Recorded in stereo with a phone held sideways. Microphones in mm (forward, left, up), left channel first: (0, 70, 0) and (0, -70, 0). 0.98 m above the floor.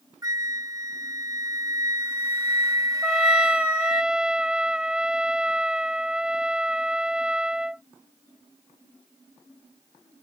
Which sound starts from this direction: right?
A flute, at 0.2 s.